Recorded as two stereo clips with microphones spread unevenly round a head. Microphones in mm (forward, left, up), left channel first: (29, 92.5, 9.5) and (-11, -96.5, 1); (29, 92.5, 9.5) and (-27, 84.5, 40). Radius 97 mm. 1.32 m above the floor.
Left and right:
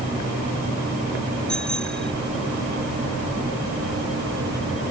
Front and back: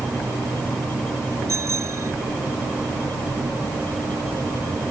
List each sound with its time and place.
1.5 s a bicycle bell: 165° left